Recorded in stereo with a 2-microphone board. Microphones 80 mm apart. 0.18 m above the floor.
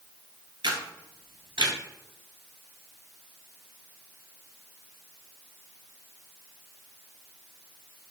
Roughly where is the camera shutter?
Right.